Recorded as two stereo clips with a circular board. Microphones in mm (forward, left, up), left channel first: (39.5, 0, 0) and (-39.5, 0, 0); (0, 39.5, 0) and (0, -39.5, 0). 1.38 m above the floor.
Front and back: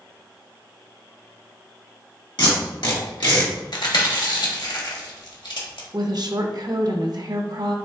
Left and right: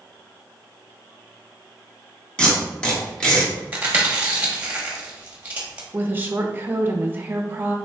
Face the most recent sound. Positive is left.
turn(degrees=-155)